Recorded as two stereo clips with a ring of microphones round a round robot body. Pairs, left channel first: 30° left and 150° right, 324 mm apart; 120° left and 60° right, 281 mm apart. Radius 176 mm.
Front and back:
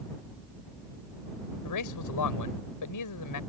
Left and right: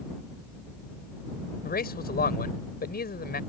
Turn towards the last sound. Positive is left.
turn(degrees=65)